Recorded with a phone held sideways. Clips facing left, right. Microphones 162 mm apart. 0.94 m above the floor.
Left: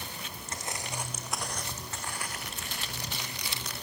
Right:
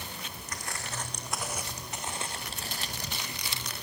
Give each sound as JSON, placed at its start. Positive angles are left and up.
{"t": 0.5, "sound": "footsteps", "side_deg": 25, "distance_m": 3.0}